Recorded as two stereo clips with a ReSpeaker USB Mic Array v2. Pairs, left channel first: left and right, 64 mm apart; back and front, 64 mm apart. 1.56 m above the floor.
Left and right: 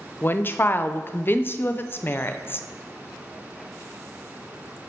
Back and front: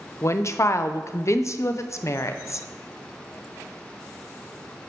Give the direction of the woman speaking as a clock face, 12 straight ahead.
7 o'clock.